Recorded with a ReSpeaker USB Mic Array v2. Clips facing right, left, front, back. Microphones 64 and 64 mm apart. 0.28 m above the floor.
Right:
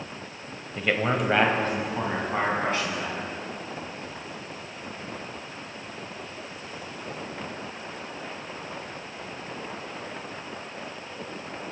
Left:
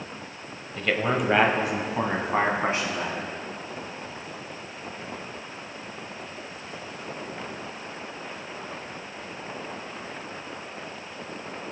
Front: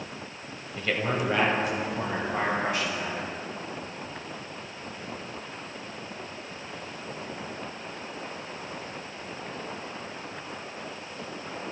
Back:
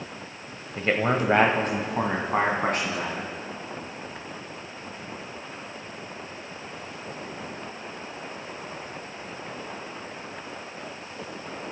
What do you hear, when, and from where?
0.8 s a man speaking: 160° right, 1.1 m; by 3.3 s 150° left, 3 m